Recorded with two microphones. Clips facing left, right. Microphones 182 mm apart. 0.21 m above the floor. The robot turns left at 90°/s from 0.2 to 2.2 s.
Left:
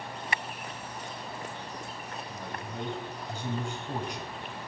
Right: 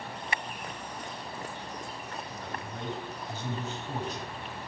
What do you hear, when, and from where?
2.3 s a man speaking: 15° left (ahead or behind), 1.4 m